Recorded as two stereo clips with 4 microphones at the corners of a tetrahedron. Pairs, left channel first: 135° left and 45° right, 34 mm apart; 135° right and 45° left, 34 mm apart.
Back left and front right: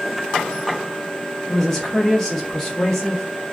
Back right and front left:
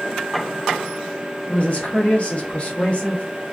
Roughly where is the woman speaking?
Behind right.